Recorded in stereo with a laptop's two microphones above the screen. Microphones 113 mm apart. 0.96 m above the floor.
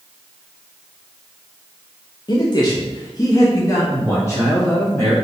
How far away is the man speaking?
About 0.5 m.